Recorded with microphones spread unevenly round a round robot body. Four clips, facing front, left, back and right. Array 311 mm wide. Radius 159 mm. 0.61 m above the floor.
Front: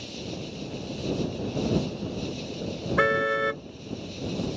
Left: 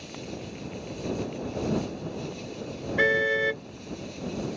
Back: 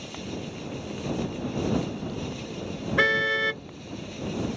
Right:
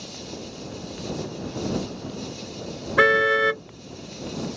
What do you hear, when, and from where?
0.0 s an insect: 125° right
3.0 s a car horn: 100° right